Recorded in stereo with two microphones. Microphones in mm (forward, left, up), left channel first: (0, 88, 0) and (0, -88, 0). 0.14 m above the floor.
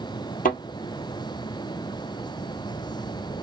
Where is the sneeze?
No sneeze in this recording.